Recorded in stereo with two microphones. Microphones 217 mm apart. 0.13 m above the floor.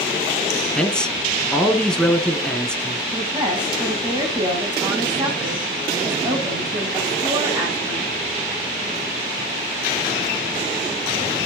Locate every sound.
0.8 s a man speaking: 5° left (ahead or behind), 1.5 m
3.1 s a woman speaking: 20° right (ahead or behind), 9.5 m